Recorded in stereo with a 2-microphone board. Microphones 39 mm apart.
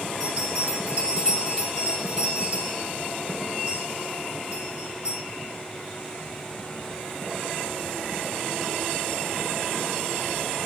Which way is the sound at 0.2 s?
20° right (ahead or behind).